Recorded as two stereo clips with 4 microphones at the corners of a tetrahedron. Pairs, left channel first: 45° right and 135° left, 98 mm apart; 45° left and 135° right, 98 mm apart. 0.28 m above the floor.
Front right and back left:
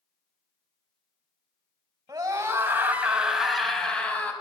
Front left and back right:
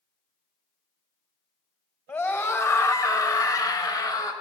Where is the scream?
105° left, 2.0 m; by 4.3 s 20° left, 2 m.